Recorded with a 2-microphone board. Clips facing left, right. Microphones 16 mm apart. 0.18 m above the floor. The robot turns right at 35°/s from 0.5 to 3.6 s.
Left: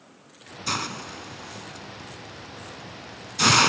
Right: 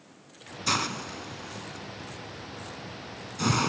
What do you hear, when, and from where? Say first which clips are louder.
0.7 s a hiss: right 1 dB; 5° right (ahead or behind), 0.5 m; by 3.7 s 55° left (ahead or behind), 0.5 m